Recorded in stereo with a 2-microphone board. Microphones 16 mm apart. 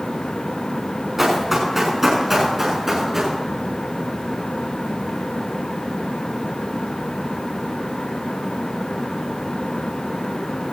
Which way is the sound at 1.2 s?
25° right (ahead or behind).